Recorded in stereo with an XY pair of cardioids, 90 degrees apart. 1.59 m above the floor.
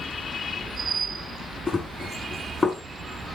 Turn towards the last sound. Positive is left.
turn(degrees=30)